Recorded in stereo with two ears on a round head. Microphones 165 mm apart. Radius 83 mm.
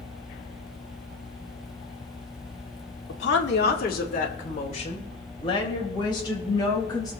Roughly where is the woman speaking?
Left.